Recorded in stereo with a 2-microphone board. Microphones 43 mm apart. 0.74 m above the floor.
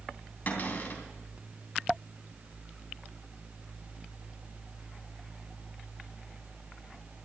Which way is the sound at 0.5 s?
45° left (ahead or behind).